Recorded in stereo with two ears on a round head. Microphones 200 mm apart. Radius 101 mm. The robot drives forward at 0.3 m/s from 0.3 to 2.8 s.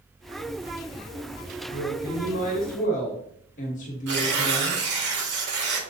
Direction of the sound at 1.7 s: 50° left (ahead or behind).